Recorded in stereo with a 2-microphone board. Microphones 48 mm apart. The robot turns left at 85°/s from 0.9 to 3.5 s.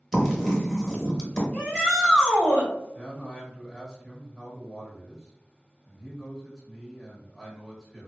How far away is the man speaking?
About 1.3 m.